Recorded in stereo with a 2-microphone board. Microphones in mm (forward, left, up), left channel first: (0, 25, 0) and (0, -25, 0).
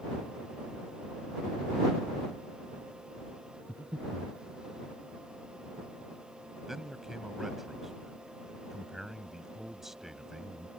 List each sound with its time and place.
3.7 s breathing: 35° right (ahead or behind)
6.7 s a man speaking: 5° right (ahead or behind)